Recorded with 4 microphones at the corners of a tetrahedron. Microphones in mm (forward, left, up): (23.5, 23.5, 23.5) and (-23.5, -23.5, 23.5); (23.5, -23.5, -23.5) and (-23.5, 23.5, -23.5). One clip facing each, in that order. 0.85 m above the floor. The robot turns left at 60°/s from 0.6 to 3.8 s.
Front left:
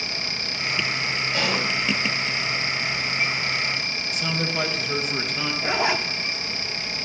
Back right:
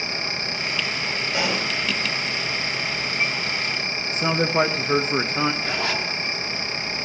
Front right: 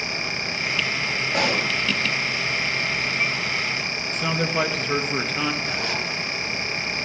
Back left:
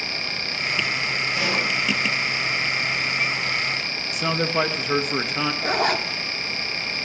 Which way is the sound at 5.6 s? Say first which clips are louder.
Front left 3 dB, back left 5 dB; 110° left.